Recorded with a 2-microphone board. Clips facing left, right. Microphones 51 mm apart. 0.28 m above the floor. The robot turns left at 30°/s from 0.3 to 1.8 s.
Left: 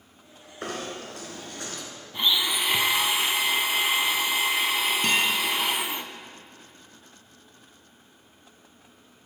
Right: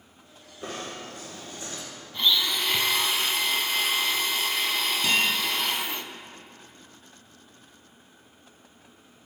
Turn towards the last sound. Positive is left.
turn(degrees=50)  # may be behind; listen again after turning